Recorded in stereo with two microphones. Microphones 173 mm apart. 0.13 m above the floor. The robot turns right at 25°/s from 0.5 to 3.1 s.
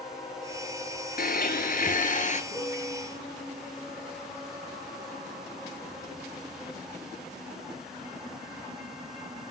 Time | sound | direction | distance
1.2 | a blender | 95° left | 1.1 m
2.5 | a piano | 20° left (ahead or behind) | 7.5 m